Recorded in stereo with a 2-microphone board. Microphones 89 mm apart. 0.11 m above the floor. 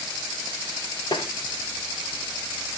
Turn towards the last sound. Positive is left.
turn(degrees=60)  # may be behind; listen again after turning